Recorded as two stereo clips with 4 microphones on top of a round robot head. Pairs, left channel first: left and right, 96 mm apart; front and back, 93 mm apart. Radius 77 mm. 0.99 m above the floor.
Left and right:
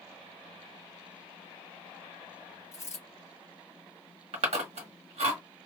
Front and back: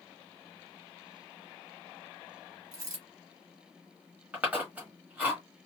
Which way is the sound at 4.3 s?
100° right.